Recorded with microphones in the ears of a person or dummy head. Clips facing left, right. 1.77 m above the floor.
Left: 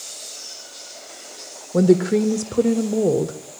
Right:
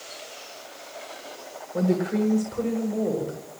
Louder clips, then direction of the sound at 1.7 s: Left 8 dB; 55° left (ahead or behind).